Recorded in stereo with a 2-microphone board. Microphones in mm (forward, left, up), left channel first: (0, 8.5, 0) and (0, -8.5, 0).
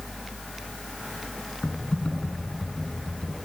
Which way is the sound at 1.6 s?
65° left (ahead or behind).